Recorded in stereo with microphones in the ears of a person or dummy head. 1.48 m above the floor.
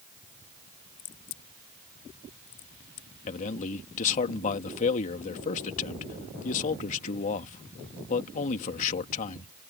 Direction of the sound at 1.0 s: 60° left (ahead or behind).